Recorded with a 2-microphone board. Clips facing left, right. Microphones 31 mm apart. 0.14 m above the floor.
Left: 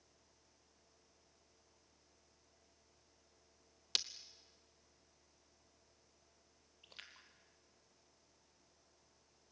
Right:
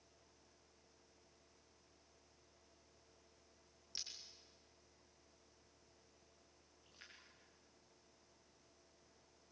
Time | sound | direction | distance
4.0 | breaking glass | 70° left (ahead or behind) | 0.9 m
6.8 | a splash | 60° left (ahead or behind) | 2.5 m